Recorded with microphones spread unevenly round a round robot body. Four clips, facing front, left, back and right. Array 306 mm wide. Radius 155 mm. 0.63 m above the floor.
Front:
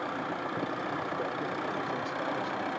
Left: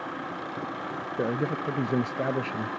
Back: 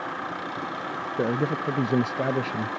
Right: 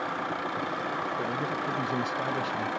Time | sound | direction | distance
1.2 | a man speaking | 165° left | ?